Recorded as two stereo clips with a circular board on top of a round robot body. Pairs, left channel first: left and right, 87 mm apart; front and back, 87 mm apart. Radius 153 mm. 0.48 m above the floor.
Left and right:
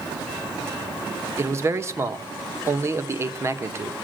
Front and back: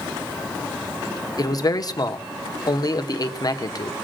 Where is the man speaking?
35° right, 1.9 m.